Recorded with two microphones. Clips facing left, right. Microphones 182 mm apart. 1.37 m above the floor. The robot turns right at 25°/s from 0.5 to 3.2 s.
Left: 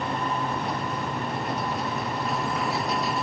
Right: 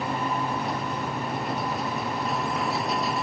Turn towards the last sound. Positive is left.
No sound to turn to.